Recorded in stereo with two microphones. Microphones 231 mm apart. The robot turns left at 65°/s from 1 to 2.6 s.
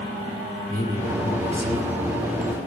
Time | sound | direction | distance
0.7 | a man speaking | 130° left | 1.5 m